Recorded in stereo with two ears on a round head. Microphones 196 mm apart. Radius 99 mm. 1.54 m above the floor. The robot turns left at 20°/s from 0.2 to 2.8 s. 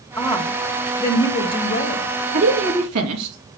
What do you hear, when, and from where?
0.2 s a woman speaking: 160° left, 1.6 m; by 2.0 s 125° left, 1.6 m
2.3 s a woman speaking: 70° right (ahead or behind), 3 m; by 3.4 s 80° right, 3 m